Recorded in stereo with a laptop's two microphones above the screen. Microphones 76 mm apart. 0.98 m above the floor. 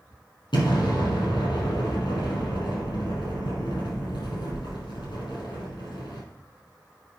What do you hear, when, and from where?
0.5 s an explosion: 80° left, 4 m